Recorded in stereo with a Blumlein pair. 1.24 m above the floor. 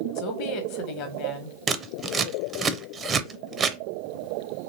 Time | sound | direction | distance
0.1 | a woman speaking | 45° left | 1.2 m
1.7 | scissors | 20° right | 0.5 m